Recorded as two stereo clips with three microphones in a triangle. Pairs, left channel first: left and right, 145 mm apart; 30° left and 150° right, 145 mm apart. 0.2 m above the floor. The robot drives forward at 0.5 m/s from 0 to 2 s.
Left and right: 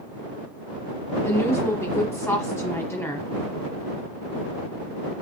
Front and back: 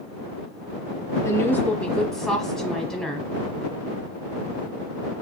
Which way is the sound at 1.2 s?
55° left.